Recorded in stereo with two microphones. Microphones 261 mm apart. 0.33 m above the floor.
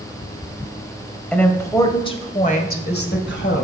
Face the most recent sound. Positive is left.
turn(degrees=50)  # may be behind; listen again after turning